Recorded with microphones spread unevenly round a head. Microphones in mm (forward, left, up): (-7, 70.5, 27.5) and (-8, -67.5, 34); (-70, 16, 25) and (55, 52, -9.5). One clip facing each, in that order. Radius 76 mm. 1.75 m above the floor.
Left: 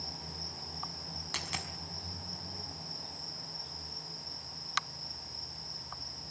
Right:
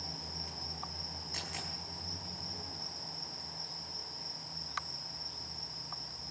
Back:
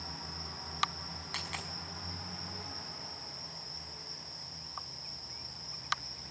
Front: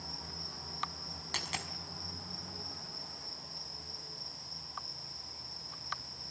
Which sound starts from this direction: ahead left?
A dropped coin, at 1.3 s.